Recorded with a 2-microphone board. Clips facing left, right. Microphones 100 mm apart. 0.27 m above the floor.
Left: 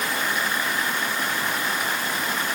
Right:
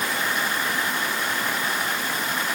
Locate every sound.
Only background noise.